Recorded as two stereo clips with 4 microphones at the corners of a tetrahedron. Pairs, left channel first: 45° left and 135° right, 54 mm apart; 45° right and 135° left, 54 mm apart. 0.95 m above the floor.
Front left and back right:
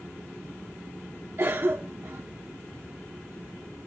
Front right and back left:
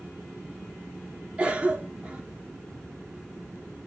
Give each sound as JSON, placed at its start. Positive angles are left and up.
{"t": 1.4, "sound": "a cough", "azimuth_deg": -175, "distance_m": 1.2}